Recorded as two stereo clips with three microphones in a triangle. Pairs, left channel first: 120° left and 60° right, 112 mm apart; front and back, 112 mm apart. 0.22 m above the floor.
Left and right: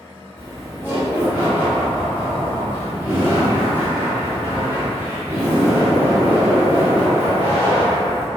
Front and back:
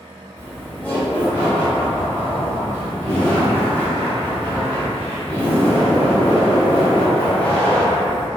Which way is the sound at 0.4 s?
40° right.